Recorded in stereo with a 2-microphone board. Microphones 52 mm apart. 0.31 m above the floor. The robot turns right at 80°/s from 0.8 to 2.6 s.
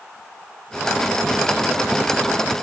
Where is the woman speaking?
No woman speaking in this recording.